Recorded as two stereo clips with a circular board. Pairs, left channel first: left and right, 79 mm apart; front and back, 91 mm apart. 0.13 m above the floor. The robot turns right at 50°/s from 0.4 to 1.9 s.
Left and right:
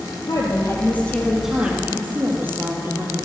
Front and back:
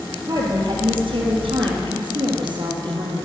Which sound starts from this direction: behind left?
A woman speaking, at 0.3 s.